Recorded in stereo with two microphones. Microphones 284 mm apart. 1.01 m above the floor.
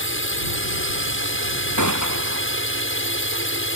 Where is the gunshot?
80° right.